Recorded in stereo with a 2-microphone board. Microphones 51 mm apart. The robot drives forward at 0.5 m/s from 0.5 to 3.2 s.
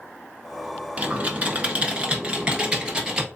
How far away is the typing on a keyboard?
About 1.0 m.